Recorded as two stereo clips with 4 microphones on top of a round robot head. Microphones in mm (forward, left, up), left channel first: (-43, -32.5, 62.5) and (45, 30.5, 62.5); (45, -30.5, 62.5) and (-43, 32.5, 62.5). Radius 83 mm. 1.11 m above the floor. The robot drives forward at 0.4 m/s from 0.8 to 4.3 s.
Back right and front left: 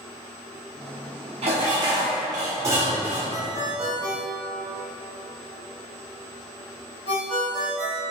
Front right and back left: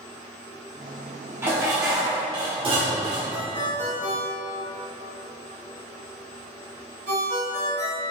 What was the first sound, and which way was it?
Dishes clattering, 70° left.